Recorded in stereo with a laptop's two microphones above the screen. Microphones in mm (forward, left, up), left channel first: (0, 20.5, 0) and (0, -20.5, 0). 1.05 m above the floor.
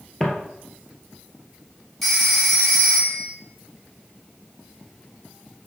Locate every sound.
0.2 s footsteps: 15° left (ahead or behind), 1.1 m
2.0 s a phone ringing: centre (ahead or behind), 1.5 m